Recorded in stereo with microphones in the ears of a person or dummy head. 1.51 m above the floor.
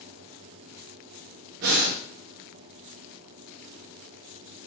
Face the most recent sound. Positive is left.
turn(degrees=-50)  # may be behind; listen again after turning